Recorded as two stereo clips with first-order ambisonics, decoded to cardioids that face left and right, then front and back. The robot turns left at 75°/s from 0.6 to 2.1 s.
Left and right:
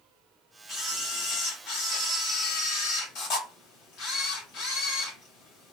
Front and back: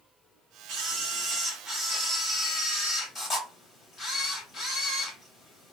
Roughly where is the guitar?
No guitar in this recording.